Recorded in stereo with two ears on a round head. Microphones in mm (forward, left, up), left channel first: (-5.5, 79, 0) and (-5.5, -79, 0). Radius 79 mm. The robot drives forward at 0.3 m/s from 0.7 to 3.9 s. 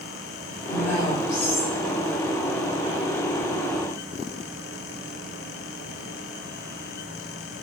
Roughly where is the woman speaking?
Left.